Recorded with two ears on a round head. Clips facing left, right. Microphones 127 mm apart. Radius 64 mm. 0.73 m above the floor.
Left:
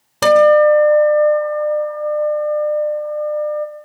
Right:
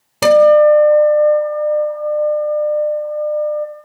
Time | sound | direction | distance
0.2 | a guitar | 10° right (ahead or behind) | 2.5 m